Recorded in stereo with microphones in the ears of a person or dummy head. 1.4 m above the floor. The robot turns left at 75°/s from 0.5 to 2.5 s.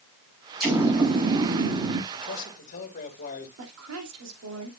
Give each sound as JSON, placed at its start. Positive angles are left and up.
{"t": 0.6, "sound": "an explosion", "azimuth_deg": 5, "distance_m": 6.5}
{"t": 2.1, "sound": "a man speaking", "side_deg": 70, "distance_m": 2.0}
{"t": 3.6, "sound": "a woman speaking", "side_deg": -85, "distance_m": 2.5}